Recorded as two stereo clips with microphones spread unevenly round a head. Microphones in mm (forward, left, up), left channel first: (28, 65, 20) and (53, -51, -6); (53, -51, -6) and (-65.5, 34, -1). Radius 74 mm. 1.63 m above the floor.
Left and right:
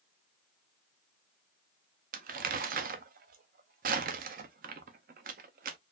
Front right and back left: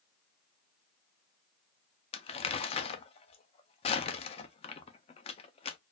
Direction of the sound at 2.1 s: 85° right.